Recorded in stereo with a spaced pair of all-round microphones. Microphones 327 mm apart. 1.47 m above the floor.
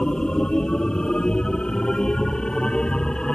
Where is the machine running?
Centre (ahead or behind).